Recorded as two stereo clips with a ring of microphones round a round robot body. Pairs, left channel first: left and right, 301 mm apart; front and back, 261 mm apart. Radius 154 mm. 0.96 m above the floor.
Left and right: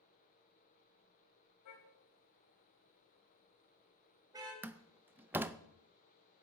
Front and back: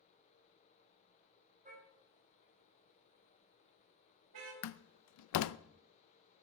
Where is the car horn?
120° left, 3.5 m; by 4.5 s 165° right, 3 m.